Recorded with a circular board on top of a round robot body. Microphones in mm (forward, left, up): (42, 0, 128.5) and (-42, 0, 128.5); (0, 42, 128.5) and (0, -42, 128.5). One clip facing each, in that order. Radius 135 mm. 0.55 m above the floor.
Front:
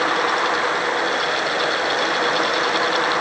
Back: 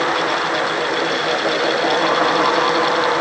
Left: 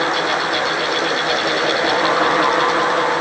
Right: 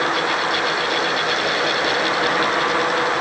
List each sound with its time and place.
Only background noise.